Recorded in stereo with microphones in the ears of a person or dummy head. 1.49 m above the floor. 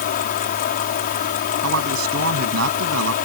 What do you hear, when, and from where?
0.0 s a fan: 50° left (ahead or behind)
1.6 s a man speaking: 80° right